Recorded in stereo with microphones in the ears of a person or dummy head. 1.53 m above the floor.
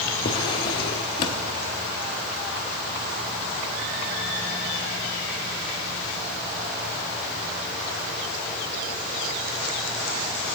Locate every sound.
0.2 s a drawer: 35° left (ahead or behind), 1.2 m